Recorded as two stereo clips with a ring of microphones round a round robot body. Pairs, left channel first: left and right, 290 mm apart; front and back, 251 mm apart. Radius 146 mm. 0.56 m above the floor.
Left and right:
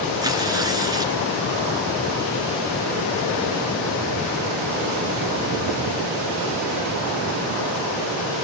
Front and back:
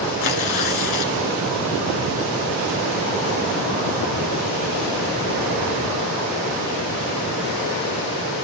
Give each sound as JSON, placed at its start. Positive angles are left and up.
{"t": 0.2, "sound": "tearing paper", "azimuth_deg": -10, "distance_m": 2.0}